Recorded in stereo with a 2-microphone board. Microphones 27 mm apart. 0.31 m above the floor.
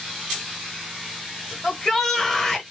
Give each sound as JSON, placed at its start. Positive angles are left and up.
{"t": 1.6, "sound": "a shout", "side_deg": 15, "distance_m": 1.3}